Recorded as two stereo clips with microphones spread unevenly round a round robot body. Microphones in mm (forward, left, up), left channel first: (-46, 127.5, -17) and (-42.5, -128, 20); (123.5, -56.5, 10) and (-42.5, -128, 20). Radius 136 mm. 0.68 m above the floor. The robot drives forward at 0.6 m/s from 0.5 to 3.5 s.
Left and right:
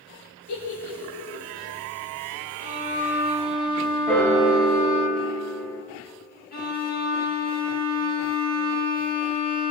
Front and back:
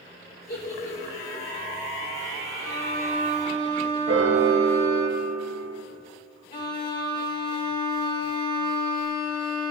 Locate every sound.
0.5 s a giggle: 80° left, 2.5 m; by 1.4 s 90° left, 2.5 m
2.6 s a violin: 150° right, 1.6 m; by 5.1 s 160° right, 2 m
4.1 s a piano: 175° left, 0.8 m
6.5 s a violin: 45° left, 1.2 m